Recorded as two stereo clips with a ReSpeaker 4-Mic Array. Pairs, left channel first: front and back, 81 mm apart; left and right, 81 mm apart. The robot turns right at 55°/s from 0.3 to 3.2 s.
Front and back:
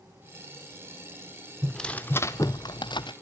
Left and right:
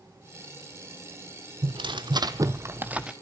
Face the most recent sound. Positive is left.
turn(degrees=-5)